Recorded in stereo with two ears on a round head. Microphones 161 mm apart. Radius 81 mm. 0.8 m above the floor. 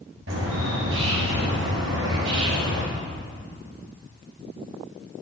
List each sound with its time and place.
0.3 s a bird: 80° right, 3 m